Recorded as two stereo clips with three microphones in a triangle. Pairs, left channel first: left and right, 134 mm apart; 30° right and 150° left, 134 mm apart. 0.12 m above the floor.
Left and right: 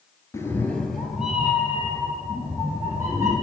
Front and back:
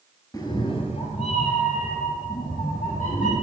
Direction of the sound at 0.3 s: 25° left.